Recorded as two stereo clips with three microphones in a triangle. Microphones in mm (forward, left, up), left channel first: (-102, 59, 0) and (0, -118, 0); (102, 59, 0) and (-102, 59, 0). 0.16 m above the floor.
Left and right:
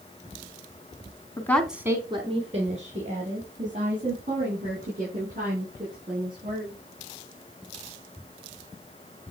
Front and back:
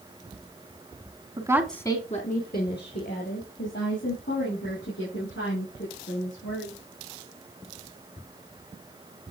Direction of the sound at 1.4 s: 170° left.